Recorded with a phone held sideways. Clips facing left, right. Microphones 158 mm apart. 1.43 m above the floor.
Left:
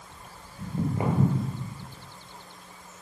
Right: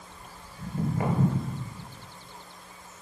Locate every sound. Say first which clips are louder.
0.6 s footsteps: left 1 dB; 25° left (ahead or behind), 1.7 m